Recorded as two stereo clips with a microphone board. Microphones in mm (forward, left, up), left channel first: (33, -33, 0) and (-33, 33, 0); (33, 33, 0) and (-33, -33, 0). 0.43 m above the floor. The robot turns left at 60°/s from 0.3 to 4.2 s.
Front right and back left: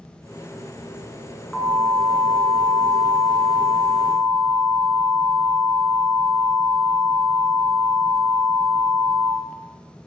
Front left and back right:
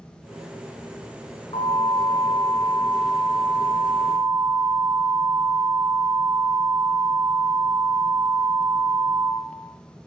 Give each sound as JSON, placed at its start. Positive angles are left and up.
{"t": 1.5, "sound": "an alarm", "azimuth_deg": 55, "distance_m": 7.5}